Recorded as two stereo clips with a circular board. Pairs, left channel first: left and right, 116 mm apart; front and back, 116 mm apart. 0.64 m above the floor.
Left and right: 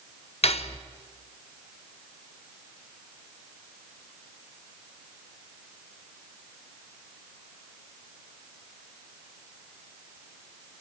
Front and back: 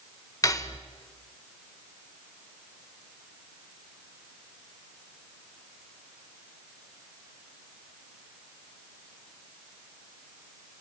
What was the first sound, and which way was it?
Cutlery clinking, 60° left.